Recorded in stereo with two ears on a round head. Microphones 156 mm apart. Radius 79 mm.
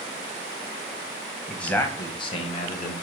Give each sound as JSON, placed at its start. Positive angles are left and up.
{"t": 1.5, "sound": "a man speaking", "side_deg": 0, "distance_m": 0.8}